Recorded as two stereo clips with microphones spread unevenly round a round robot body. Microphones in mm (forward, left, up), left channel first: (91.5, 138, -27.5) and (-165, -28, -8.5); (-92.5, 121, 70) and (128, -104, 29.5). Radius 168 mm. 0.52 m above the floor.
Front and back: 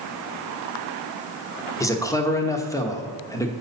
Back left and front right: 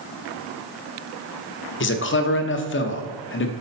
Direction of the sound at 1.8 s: 100° left.